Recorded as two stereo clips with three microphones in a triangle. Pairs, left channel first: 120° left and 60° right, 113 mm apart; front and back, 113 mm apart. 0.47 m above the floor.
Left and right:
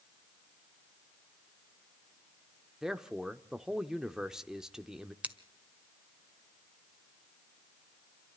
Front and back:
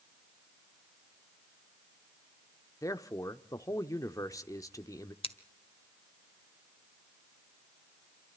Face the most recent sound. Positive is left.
turn(degrees=15)